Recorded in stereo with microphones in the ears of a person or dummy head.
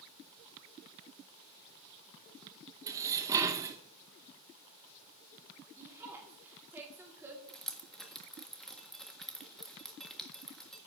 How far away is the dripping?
About 1.5 m.